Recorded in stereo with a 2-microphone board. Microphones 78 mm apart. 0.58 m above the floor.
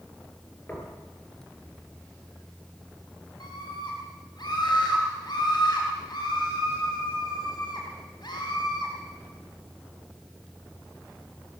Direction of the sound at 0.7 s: 25° left (ahead or behind).